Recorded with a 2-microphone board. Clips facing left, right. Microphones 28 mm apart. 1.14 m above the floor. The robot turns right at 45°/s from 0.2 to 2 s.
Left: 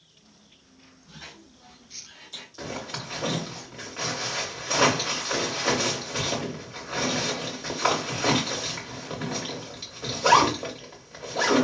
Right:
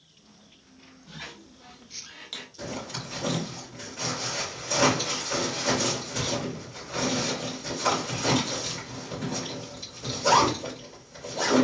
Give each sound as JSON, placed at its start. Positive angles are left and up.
{"t": 1.1, "sound": "a squeak", "side_deg": -70, "distance_m": 0.8}
{"t": 2.6, "sound": "a zipper", "side_deg": 50, "distance_m": 1.8}